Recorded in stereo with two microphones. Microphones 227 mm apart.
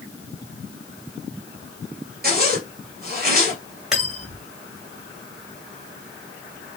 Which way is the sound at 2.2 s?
45° right (ahead or behind).